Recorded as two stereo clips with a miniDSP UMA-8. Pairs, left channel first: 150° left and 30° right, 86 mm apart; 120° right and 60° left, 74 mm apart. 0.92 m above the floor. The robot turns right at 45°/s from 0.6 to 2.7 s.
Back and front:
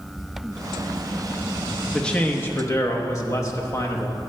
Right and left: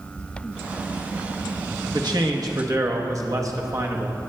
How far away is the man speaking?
About 0.9 m.